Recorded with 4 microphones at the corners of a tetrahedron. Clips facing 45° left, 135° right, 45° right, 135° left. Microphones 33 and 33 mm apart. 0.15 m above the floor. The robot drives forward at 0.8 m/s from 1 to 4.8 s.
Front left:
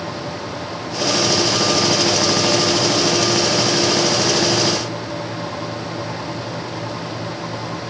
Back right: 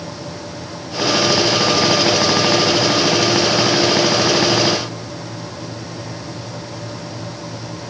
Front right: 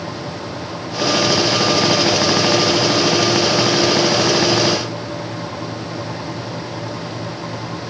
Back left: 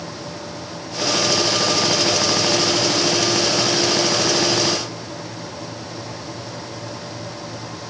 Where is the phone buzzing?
I don't hear a phone buzzing.